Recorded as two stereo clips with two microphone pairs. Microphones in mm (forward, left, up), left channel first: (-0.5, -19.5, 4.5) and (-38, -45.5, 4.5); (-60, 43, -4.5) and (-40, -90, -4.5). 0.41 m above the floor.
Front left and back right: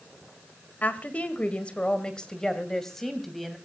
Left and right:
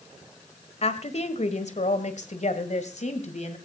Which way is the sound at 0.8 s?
75° left.